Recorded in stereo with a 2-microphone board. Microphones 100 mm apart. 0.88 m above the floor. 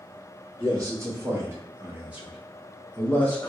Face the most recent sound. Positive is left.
turn(degrees=20)  # may be behind; listen again after turning